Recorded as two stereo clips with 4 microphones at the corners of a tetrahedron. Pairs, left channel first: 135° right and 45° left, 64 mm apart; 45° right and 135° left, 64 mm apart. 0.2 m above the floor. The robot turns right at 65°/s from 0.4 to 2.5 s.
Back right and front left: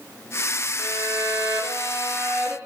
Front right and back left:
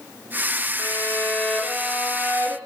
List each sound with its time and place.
0.8 s a violin: 5° right, 3 m; by 2.5 s 105° left, 3 m